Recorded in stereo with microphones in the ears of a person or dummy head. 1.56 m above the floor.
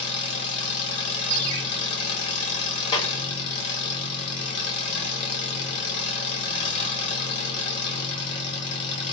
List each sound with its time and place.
0.0 s an engine running: 60° left (ahead or behind), 0.8 m
1.3 s a ringtone: 40° right (ahead or behind), 0.9 m
2.9 s a clap: 30° left (ahead or behind), 0.6 m